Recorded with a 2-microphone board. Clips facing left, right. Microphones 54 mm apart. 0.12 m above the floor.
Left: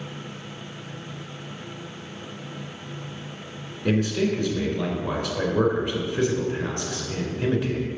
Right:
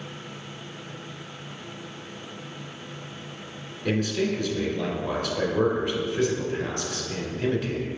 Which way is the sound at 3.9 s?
25° left (ahead or behind).